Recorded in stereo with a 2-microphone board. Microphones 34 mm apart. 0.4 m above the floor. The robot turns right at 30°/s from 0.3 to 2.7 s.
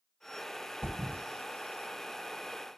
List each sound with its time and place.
0.8 s a thud: 75° right (ahead or behind), 1.2 m; by 1.2 s 65° right (ahead or behind), 1.2 m